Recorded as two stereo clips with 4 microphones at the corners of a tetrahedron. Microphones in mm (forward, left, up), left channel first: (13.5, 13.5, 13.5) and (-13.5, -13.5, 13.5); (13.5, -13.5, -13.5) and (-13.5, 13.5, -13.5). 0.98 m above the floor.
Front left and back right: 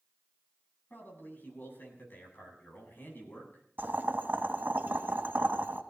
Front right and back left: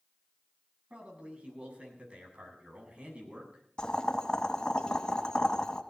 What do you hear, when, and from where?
0.9 s a man speaking: 75° left, 8 m
3.8 s boiling: 115° right, 1.9 m